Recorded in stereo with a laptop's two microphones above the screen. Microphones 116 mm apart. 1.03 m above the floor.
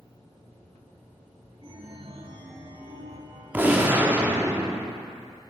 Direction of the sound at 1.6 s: 50° right (ahead or behind).